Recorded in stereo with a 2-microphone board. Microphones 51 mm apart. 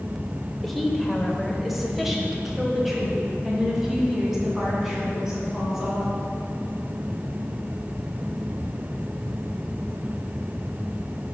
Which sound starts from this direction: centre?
A woman speaking, at 0.6 s.